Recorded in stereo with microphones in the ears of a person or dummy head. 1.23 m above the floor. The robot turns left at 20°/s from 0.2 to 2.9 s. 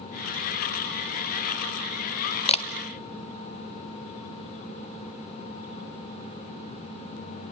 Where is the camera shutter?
25° left (ahead or behind), 0.5 m; by 2.6 s 30° left (ahead or behind), 0.5 m.